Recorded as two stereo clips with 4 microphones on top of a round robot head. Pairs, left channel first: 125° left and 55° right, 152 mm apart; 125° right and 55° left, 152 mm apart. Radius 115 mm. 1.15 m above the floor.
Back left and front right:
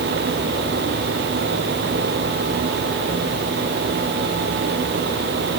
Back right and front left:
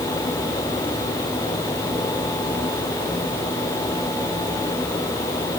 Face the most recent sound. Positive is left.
No sound to turn to.